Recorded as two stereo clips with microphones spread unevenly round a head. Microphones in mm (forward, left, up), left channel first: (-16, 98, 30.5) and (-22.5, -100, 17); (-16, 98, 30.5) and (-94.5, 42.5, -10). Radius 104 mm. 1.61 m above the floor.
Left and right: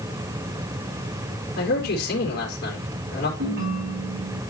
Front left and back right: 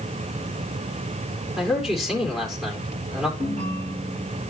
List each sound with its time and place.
1.6 s a man speaking: 130° left, 4 m
3.4 s a ringtone: 125° right, 7 m